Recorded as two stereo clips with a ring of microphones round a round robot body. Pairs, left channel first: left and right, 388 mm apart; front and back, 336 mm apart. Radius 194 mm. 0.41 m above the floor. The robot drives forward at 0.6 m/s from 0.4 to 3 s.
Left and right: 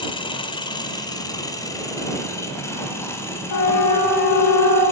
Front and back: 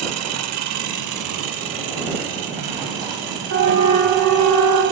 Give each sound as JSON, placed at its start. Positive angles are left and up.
{"t": 0.0, "sound": "an engine running", "azimuth_deg": 165, "distance_m": 1.5}
{"t": 3.5, "sound": "a siren", "azimuth_deg": 130, "distance_m": 4.5}